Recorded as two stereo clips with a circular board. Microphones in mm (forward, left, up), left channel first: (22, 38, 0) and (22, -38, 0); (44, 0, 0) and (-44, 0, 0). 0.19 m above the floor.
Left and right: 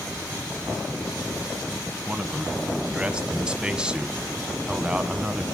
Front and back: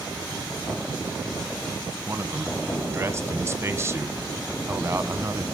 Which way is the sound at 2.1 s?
155° right.